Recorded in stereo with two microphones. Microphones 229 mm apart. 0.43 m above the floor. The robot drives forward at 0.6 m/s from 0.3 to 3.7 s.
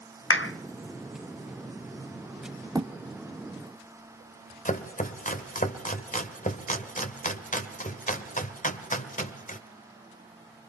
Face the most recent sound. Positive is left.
turn(degrees=35)  # may be behind; listen again after turning